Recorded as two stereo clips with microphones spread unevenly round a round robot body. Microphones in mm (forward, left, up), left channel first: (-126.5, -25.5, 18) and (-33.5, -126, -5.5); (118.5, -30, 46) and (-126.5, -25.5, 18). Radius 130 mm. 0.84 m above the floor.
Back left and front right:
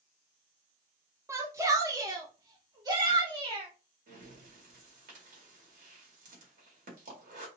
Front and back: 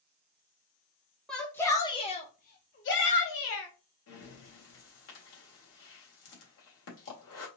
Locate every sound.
1.3 s a shout: 95° right, 1.0 m; by 3.7 s 10° left, 1.2 m
4.1 s breathing: 40° right, 1.9 m